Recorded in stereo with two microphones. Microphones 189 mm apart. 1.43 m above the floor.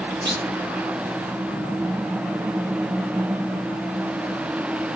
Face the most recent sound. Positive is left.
turn(degrees=-80)